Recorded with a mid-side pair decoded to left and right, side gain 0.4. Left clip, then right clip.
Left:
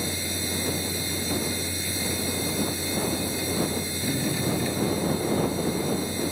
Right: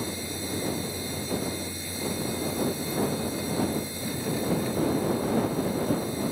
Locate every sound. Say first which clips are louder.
0.0 s a machine running: left 4 dB; 50° left